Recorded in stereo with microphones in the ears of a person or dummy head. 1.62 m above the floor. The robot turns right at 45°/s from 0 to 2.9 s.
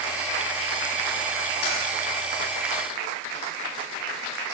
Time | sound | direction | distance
1.6 | typing on a keyboard | 70° left (ahead or behind) | 5 m